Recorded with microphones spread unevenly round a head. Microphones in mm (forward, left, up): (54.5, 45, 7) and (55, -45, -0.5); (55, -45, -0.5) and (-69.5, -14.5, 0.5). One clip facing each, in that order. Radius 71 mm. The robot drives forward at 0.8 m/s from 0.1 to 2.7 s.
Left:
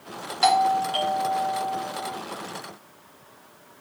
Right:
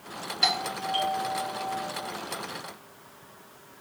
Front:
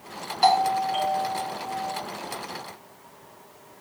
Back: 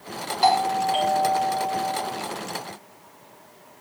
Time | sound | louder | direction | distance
0.4 | a doorbell | left 11 dB, even | 75° left | 0.8 m